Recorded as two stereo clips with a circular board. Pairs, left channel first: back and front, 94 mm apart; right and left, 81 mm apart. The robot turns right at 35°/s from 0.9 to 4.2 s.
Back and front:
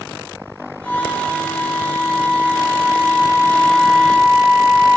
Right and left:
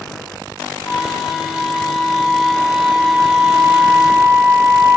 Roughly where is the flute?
Ahead right.